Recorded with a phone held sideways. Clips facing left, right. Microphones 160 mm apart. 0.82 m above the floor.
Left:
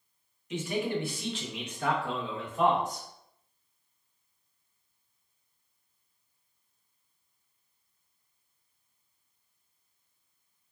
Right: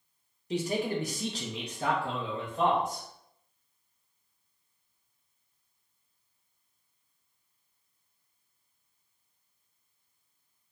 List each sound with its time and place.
0.5 s a man speaking: 35° right (ahead or behind), 0.6 m; by 3.1 s 20° right (ahead or behind), 1.2 m